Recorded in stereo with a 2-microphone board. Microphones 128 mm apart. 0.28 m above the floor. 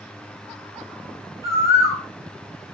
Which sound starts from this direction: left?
A bird, at 1.4 s.